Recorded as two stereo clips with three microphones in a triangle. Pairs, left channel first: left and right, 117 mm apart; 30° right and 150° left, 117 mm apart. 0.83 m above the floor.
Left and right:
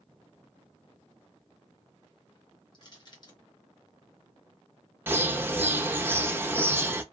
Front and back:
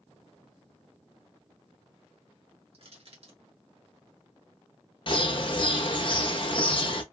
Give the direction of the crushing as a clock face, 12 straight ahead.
8 o'clock.